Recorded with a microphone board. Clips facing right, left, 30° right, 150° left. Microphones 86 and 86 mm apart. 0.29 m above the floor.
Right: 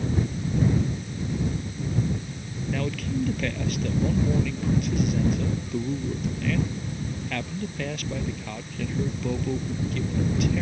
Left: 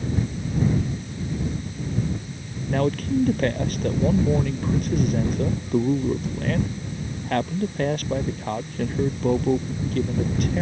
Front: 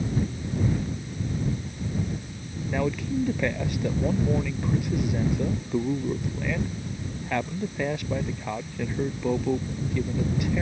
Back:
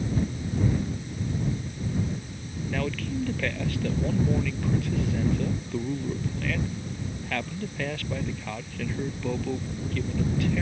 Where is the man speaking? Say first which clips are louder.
Left 7 dB, front 4 dB; 40° left.